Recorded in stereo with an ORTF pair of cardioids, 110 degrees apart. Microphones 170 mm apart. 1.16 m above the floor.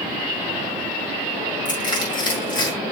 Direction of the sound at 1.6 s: 25° left.